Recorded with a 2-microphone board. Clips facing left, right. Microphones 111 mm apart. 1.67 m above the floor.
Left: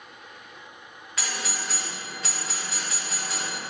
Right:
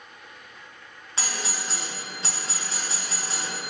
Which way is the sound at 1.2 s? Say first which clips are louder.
Even; 30° right (ahead or behind).